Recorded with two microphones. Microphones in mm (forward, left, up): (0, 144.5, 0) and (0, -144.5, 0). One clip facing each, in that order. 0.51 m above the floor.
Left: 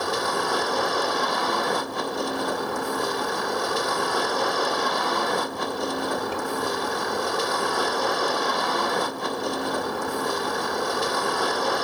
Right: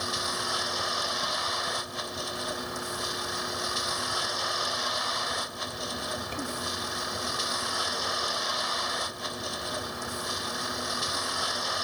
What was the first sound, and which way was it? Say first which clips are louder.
A vehicle: left 10 dB; 75° left (ahead or behind).